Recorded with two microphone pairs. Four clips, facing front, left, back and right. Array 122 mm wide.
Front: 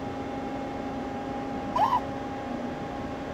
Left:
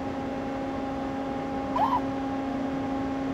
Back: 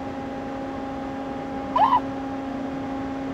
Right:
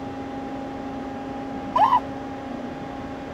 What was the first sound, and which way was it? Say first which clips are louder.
A scream: right 7 dB, back 6 dB; 130° right.